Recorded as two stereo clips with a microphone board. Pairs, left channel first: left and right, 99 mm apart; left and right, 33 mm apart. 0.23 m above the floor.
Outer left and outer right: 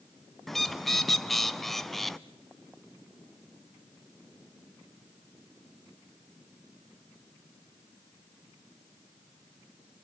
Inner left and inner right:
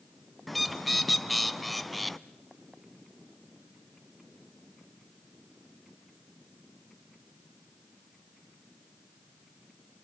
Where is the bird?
5° left (ahead or behind), 0.6 m.